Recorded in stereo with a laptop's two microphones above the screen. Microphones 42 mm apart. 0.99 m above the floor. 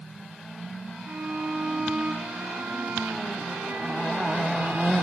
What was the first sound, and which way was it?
A violin, 55° right (ahead or behind).